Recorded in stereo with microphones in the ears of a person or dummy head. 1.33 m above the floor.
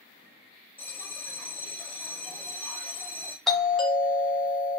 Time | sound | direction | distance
0.8 | a bell | 10° left (ahead or behind) | 0.6 m
3.5 | a doorbell | centre (ahead or behind) | 0.6 m